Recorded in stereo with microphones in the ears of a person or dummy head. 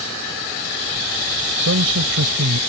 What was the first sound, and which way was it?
A man speaking, 75° right (ahead or behind).